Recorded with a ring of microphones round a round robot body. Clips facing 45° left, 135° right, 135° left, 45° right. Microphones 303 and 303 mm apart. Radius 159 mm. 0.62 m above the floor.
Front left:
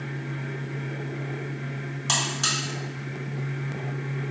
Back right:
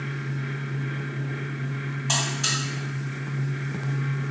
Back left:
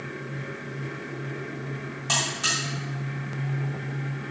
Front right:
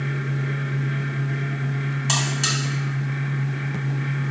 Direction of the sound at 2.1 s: 5° left.